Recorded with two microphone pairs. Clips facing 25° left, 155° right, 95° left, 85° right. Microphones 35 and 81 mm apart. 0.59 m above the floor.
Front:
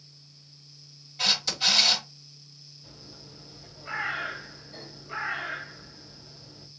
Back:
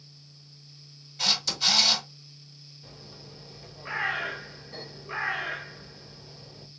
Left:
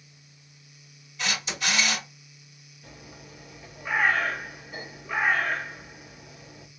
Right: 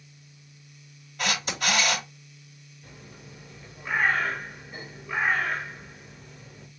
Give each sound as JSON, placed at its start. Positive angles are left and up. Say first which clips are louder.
{"t": 1.2, "sound": "a camera shutter", "louder": "front 1 dB, right 2 dB", "azimuth_deg": -55, "distance_m": 3.5}
{"t": 2.8, "sound": "a bird", "louder": "back 2 dB, left 1 dB", "azimuth_deg": 175, "distance_m": 2.5}